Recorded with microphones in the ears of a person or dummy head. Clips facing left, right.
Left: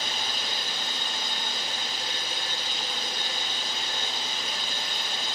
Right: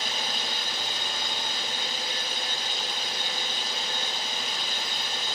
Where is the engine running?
Centre (ahead or behind), 0.8 m.